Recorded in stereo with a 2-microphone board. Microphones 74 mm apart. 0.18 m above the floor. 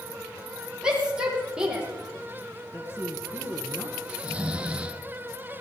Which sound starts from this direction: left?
A man speaking, at 2.7 s.